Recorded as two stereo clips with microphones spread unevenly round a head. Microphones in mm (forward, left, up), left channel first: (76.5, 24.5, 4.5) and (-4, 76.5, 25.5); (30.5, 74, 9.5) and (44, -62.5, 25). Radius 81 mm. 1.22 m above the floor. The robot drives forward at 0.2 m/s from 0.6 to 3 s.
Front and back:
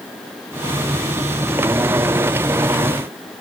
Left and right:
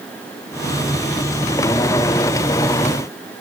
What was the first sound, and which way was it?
Only background noise.